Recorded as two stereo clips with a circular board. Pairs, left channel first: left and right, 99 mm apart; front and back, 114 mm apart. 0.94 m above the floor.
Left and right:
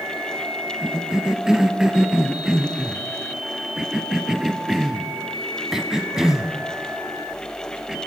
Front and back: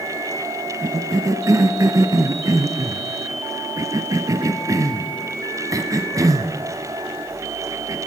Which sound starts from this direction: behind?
A cough, at 0.8 s.